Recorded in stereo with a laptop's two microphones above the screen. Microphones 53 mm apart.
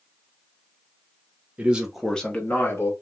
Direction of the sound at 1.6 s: 25° right (ahead or behind).